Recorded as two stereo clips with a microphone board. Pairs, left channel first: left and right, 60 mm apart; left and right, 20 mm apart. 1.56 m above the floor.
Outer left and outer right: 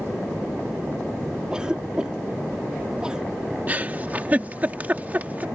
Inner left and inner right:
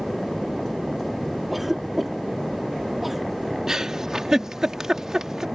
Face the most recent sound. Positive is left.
turn(degrees=-30)  # may be behind; listen again after turning